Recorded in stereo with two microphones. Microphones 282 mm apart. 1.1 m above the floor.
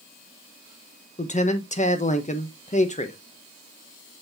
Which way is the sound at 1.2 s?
25° left (ahead or behind).